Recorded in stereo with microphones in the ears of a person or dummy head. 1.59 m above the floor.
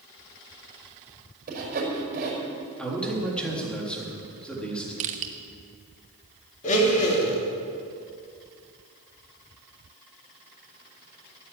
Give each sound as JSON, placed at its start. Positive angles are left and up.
{"t": 1.5, "sound": "sawing", "side_deg": -50, "distance_m": 5.5}
{"t": 2.8, "sound": "a man speaking", "side_deg": 0, "distance_m": 3.5}
{"t": 5.0, "sound": "crushing", "side_deg": -40, "distance_m": 1.1}
{"t": 6.6, "sound": "a blender", "side_deg": 35, "distance_m": 3.0}